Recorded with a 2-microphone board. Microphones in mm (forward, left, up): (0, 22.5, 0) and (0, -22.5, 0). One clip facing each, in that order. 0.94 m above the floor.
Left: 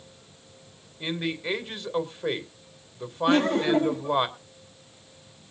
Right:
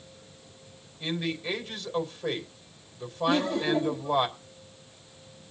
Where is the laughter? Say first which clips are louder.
Left 4 dB; 55° left (ahead or behind), 1.6 m.